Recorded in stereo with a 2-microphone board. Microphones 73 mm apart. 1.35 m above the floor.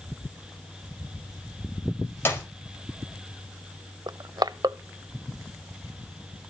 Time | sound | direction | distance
2.2 | a clap | 30° left (ahead or behind) | 5 m
4.1 | crushing | 70° right (ahead or behind) | 0.8 m